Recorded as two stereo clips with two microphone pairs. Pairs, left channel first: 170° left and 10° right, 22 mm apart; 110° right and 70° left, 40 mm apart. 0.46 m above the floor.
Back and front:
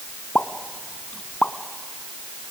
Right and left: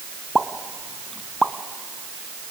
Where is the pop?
170° left, 1.1 m.